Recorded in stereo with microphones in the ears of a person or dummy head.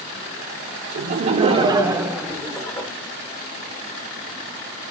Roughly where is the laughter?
Right.